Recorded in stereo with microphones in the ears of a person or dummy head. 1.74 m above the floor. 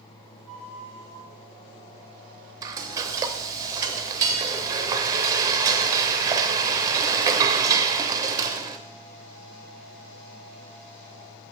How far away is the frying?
About 0.6 m.